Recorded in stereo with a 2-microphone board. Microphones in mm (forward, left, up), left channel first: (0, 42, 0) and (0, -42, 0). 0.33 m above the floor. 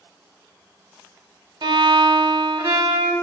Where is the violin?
70° right (ahead or behind), 0.6 m.